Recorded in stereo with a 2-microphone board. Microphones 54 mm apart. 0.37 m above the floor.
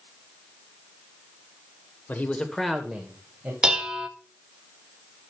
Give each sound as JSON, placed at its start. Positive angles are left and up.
{"t": 2.1, "sound": "a man speaking", "side_deg": 35, "distance_m": 1.3}
{"t": 3.6, "sound": "dishes clattering", "side_deg": -15, "distance_m": 0.9}